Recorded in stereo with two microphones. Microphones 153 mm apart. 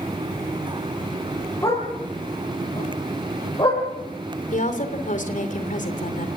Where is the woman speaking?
55° left (ahead or behind), 3 m.